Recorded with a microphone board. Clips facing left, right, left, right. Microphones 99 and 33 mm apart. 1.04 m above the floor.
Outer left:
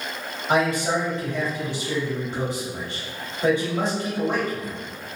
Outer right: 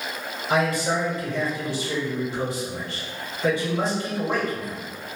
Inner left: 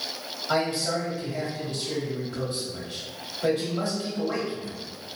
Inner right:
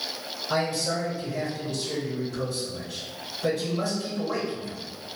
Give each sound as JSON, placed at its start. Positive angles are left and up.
{"t": 0.5, "sound": "a man speaking", "side_deg": 60, "distance_m": 1.9}